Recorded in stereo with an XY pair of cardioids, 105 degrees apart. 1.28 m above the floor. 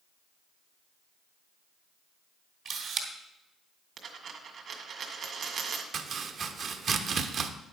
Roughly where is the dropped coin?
Ahead right.